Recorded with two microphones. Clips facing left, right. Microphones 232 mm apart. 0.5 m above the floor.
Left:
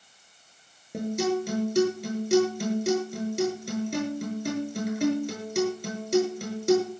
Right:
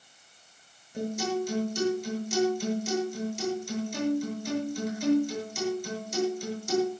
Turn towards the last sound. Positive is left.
turn(degrees=70)  # may be behind; listen again after turning